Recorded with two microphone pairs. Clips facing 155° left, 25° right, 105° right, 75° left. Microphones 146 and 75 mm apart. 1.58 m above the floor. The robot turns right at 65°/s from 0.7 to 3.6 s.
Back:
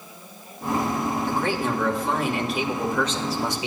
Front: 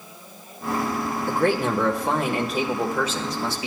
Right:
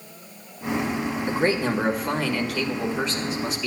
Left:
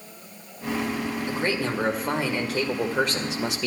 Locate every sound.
1.3 s a man speaking: 60° right, 1.5 m; by 3.7 s 90° left, 1.5 m